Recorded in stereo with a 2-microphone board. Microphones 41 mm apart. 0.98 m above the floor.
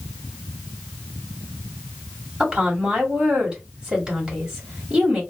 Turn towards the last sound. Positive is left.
turn(degrees=-20)  # may be behind; listen again after turning